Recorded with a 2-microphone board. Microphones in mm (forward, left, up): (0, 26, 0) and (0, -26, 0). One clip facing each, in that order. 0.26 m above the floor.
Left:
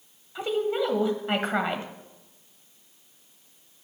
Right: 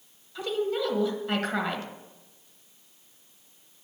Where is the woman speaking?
25° left (ahead or behind), 1.0 m.